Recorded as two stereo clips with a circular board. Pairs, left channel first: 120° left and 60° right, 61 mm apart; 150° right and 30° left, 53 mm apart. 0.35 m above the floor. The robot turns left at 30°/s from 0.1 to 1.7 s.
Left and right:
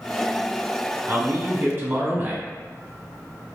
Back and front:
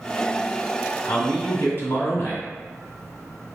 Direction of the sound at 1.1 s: 90° right.